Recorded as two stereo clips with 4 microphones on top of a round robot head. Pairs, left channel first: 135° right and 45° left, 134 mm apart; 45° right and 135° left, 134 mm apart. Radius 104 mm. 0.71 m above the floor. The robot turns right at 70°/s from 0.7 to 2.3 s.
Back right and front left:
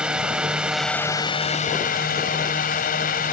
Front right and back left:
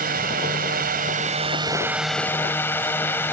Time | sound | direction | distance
0.0 | a drone | 130° left | ?